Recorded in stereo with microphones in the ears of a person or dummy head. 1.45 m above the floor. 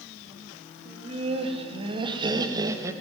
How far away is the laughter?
About 4 m.